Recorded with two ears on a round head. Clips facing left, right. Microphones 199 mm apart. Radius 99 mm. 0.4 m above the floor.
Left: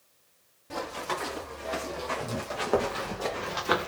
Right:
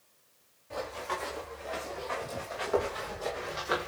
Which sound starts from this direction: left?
Running footsteps, at 0.7 s.